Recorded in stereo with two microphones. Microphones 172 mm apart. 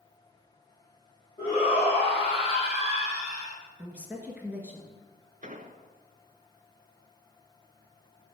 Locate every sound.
1.4 s a shout: 25° left (ahead or behind), 4.5 m; by 3.6 s 50° left (ahead or behind), 3 m
3.8 s a woman speaking: 10° right (ahead or behind), 1.9 m
5.4 s an explosion: 50° right (ahead or behind), 0.7 m